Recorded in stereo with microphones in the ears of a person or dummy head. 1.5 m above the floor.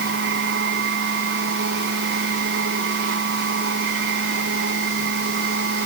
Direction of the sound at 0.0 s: 65° right (ahead or behind).